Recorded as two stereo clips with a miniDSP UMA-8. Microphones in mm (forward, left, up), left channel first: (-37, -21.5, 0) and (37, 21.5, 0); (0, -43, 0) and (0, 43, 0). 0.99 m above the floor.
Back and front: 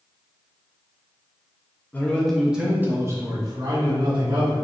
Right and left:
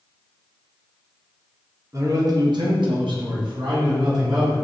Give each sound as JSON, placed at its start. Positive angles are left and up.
{"t": 1.9, "sound": "a man speaking", "azimuth_deg": 140, "distance_m": 1.0}